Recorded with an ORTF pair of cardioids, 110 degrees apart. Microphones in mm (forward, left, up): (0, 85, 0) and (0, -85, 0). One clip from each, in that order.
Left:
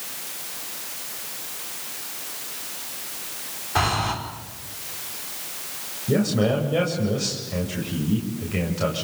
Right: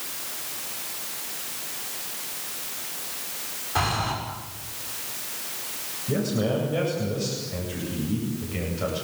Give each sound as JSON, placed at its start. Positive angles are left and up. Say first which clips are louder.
{"t": 3.8, "sound": "breathing", "louder": "left 3 dB", "azimuth_deg": 20, "distance_m": 6.0}
{"t": 6.1, "sound": "a man speaking", "louder": "left 4 dB", "azimuth_deg": 30, "distance_m": 8.0}